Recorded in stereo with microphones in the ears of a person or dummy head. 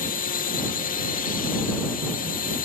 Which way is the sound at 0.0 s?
40° left (ahead or behind).